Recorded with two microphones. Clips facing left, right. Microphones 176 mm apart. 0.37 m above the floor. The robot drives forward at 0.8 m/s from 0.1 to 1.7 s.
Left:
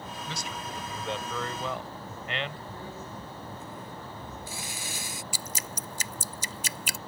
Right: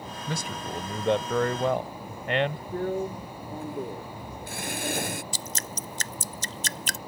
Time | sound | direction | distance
0.3 | a man speaking | 45° right (ahead or behind) | ?
2.7 | a drill | 55° right (ahead or behind) | ?
5.3 | dripping | 10° left (ahead or behind) | ?